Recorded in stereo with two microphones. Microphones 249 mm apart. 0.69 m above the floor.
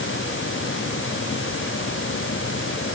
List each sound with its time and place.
Only background noise.